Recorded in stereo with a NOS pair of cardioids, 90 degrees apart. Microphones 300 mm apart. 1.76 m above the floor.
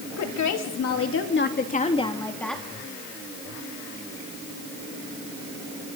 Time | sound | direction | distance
0.2 | a woman speaking | 70° left | 3.5 m